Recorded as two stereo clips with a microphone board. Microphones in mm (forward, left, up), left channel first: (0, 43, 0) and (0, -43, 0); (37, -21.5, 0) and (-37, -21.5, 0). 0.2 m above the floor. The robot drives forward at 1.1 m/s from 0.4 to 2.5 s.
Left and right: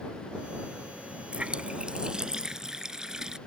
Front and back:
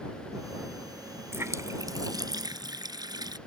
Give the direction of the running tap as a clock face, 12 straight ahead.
5 o'clock.